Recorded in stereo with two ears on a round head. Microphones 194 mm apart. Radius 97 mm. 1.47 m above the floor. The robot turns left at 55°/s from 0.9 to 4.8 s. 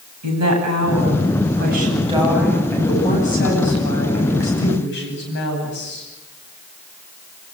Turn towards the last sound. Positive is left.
turn(degrees=55)